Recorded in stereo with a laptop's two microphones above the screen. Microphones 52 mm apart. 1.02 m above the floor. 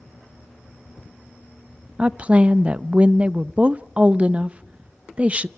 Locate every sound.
2.0 s a woman speaking: 25° right (ahead or behind), 0.7 m